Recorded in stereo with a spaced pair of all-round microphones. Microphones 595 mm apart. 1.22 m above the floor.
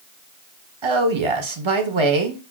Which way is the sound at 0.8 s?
50° right (ahead or behind).